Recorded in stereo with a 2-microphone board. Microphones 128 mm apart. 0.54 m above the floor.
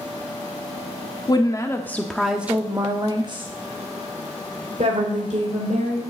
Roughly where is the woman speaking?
Left.